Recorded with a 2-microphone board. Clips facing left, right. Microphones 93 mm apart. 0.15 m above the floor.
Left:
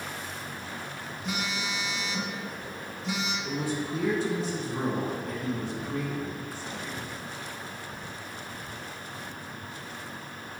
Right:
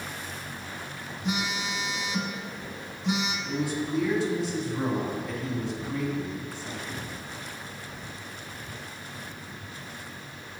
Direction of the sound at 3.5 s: 45° left (ahead or behind).